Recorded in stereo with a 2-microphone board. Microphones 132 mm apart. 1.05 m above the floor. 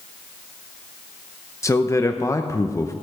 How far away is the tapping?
No tapping in this recording.